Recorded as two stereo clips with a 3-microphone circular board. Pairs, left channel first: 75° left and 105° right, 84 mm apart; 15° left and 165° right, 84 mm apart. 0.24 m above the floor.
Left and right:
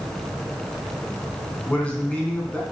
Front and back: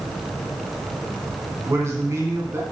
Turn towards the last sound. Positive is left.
turn(degrees=150)